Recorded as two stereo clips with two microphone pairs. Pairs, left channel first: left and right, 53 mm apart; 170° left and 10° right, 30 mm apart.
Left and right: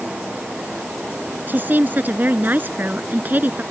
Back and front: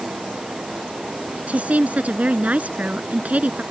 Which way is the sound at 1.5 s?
40° right.